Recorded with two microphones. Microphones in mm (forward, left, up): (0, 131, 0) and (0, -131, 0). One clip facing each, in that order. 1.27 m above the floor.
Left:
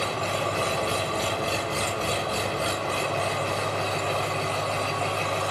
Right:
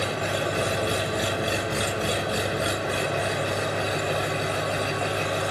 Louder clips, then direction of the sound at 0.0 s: Right 2 dB; 15° right (ahead or behind).